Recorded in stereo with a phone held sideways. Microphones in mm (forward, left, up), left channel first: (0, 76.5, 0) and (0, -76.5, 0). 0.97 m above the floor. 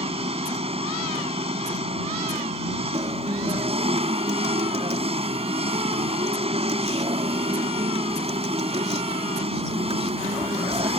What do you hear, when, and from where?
0.0 s an engine running: 40° right (ahead or behind)
2.9 s a guitar: 40° right (ahead or behind)